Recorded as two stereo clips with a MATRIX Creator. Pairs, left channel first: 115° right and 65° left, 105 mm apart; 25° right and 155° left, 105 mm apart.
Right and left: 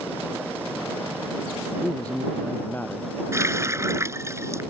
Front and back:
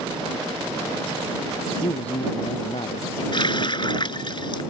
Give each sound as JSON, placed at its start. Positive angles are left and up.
{"t": 1.8, "sound": "a man speaking", "azimuth_deg": -35}
{"t": 3.3, "sound": "a running tap", "azimuth_deg": 10}